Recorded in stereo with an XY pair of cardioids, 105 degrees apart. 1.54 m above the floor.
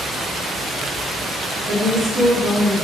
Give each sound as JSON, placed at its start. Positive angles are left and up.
{"t": 1.7, "sound": "a woman speaking", "azimuth_deg": -40, "distance_m": 1.4}